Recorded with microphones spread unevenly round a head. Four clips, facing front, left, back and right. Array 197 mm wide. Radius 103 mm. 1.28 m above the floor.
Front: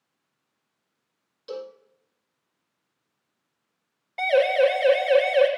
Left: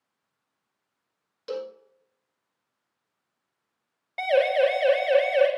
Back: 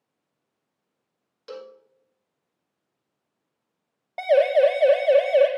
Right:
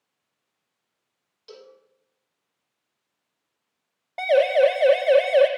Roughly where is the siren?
Behind.